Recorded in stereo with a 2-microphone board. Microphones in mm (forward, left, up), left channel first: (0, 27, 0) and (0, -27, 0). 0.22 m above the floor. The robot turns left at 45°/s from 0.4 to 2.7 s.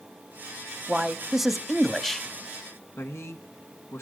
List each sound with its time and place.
0.9 s a man speaking: 15° right (ahead or behind), 1.0 m; by 2.3 s 10° left (ahead or behind), 1.0 m
3.0 s a man speaking: 55° left (ahead or behind), 2 m